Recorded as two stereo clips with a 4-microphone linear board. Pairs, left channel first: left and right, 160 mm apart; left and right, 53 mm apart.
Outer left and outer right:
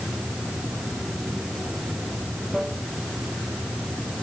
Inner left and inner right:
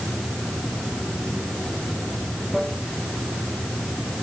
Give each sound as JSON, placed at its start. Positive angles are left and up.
{"t": 0.0, "sound": "running water", "side_deg": 0}